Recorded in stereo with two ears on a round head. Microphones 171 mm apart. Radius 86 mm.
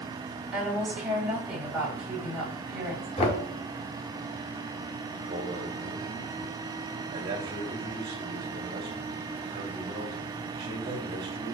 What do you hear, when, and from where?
0.5 s a woman speaking: 5° right (ahead or behind), 3.5 m
3.2 s knocking: 35° left (ahead or behind), 1.3 m
5.1 s a man speaking: 25° right (ahead or behind), 2.5 m